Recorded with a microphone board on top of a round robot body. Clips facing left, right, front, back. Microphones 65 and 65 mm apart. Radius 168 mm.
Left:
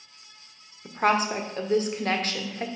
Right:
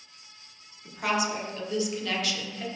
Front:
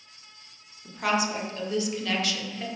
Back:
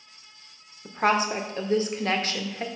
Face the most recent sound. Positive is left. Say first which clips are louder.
# left 5 dB, back 3 dB
turn(degrees=135)